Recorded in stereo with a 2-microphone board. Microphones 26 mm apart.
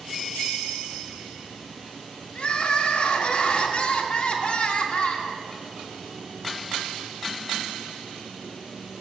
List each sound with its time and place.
2.4 s crying: 45° left (ahead or behind), 1.2 m